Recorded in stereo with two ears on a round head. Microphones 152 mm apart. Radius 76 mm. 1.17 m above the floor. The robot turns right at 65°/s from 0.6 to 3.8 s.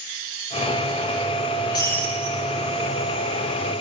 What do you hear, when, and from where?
1.7 s breaking glass: 150° left, 5 m; by 2.4 s 165° right, 5 m